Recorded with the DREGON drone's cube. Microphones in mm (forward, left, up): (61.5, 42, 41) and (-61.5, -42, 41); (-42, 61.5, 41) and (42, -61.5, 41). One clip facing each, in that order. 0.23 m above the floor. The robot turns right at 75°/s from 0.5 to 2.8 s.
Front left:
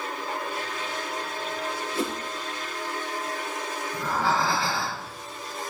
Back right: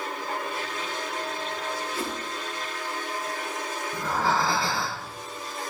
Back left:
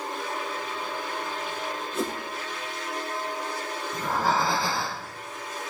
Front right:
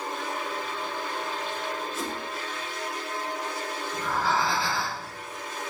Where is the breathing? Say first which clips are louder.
Even, back left 2 dB; 165° left, 3.5 m.